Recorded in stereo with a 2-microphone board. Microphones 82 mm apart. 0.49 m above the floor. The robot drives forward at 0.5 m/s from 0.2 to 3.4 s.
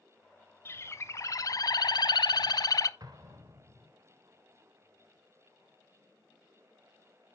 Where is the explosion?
55° right (ahead or behind), 1.8 m; by 3.9 s 50° right (ahead or behind), 1.8 m.